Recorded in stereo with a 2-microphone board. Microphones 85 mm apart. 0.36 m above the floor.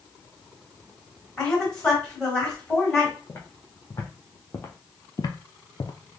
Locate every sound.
1.4 s a woman speaking: 10° left (ahead or behind), 2.5 m
3.3 s footsteps: 20° left (ahead or behind), 1.3 m; by 5.9 s 55° left (ahead or behind), 0.5 m